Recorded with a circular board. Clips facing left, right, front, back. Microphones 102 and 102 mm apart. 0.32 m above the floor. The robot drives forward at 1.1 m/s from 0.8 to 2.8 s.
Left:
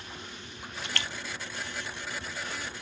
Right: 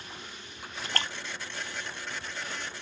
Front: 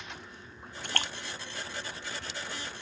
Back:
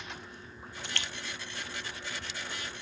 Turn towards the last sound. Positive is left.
turn(degrees=-120)